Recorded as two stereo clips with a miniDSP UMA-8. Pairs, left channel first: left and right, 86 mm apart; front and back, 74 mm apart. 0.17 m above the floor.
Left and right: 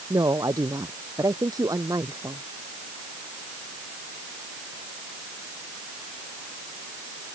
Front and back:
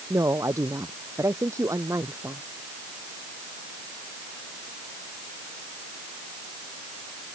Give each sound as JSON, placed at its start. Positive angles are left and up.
{"t": 0.1, "sound": "a woman speaking", "azimuth_deg": -135}